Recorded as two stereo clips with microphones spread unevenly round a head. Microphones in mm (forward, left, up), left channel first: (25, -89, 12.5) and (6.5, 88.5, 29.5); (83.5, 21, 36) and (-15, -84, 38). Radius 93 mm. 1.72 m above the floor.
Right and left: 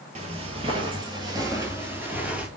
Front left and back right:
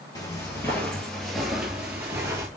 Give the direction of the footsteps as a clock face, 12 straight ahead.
8 o'clock.